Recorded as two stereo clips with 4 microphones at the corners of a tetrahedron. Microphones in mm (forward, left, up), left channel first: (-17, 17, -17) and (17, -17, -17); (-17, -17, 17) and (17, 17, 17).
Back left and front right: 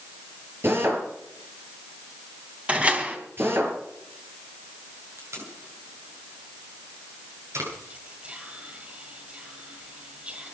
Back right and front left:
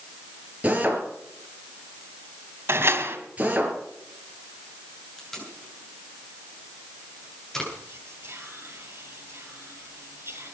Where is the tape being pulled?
50° right, 8.5 m.